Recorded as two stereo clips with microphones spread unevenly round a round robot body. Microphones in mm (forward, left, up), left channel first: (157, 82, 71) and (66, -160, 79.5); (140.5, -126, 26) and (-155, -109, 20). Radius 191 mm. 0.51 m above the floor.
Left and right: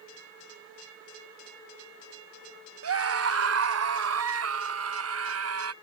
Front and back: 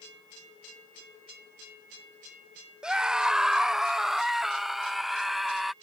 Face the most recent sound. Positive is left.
turn(degrees=-95)